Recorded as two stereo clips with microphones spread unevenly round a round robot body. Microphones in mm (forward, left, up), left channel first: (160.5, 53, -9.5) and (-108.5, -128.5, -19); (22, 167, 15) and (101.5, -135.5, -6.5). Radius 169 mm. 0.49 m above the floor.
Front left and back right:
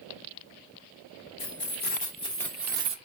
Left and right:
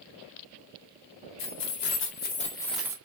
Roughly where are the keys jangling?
Left.